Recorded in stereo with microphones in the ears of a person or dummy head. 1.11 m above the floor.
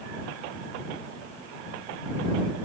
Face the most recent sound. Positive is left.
No sound to turn to.